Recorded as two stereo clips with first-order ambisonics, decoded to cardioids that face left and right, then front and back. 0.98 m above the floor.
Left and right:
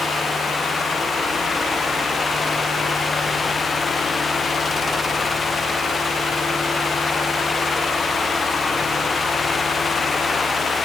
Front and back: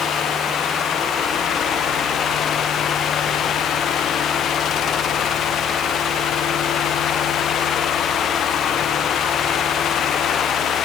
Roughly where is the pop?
No pop in this recording.